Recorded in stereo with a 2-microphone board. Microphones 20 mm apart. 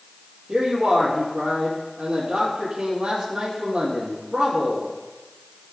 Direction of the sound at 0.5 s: 55° right (ahead or behind).